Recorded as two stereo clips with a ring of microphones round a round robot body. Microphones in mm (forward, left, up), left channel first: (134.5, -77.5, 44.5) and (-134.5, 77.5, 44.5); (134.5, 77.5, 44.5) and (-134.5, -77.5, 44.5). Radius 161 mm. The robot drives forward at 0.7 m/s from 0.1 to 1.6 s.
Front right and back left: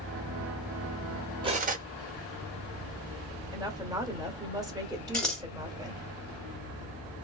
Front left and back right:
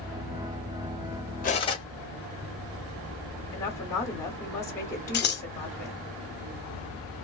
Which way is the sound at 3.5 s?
95° left.